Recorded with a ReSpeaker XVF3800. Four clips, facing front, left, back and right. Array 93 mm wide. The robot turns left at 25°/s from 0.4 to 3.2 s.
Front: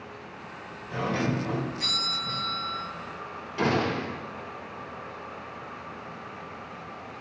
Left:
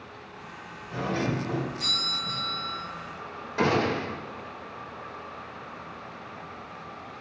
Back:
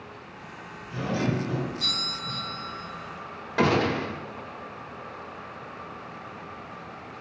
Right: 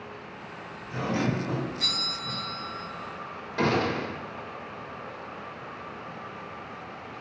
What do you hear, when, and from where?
0.9 s a doorbell: 10° right, 3.5 m; by 2.8 s 60° right, 3.5 m
3.6 s a gunshot: 170° left, 1.5 m